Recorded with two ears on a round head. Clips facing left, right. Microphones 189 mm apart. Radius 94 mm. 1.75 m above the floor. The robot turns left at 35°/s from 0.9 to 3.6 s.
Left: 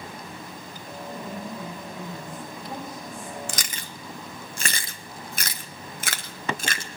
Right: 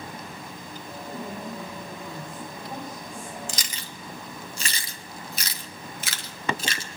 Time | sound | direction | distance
1.1 | a woman speaking | 145° right | 7 m
3.5 | chewing | 50° left (ahead or behind) | 0.9 m